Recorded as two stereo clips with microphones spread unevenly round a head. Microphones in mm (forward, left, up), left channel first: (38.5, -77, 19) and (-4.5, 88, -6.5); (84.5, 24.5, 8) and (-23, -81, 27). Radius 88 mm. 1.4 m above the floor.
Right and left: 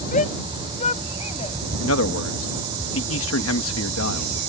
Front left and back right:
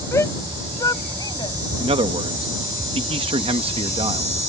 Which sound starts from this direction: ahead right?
A shout, at 0.1 s.